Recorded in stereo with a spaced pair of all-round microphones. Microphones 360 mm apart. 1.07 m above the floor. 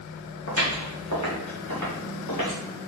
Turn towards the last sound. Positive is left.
turn(degrees=60)  # may be behind; listen again after turning